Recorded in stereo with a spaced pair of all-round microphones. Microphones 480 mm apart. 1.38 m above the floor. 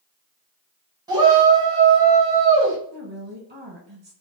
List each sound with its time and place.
1.1 s a shout: 10° right (ahead or behind), 1.9 m
2.9 s a woman speaking: 60° right (ahead or behind), 1.6 m